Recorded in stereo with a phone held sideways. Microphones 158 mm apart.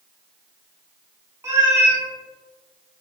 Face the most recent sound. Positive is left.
turn(degrees=-15)  # may be behind; listen again after turning